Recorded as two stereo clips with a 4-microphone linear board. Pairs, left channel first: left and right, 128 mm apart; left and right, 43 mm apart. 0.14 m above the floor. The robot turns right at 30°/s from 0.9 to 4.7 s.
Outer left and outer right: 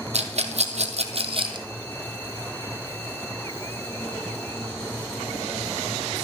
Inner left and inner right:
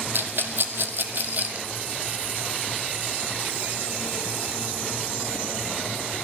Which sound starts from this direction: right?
A rattle, at 0.1 s.